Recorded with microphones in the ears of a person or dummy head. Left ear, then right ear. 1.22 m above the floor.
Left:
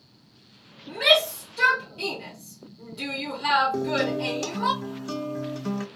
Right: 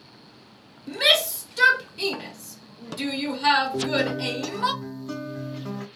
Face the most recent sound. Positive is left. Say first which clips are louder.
# right 1 dB
turn(degrees=80)